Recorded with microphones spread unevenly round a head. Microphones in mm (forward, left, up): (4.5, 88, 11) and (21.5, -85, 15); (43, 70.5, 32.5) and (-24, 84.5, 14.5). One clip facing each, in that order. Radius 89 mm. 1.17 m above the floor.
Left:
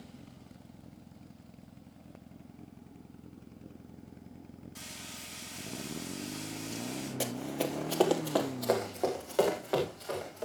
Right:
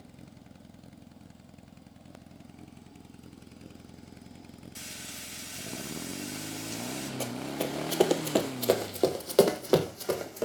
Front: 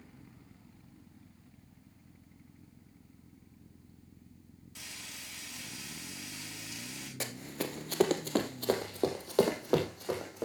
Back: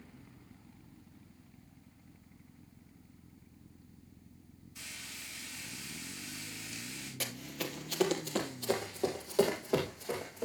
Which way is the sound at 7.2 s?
20° left.